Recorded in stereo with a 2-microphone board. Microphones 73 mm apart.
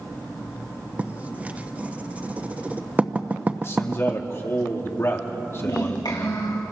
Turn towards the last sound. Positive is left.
turn(degrees=75)  # may be behind; listen again after turning